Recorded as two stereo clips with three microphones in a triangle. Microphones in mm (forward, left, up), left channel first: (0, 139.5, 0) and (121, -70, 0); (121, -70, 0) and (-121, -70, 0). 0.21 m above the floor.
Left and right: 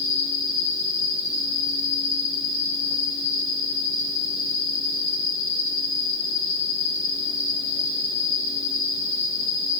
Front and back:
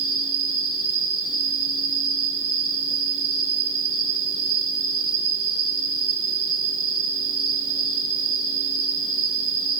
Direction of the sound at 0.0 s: 120° right.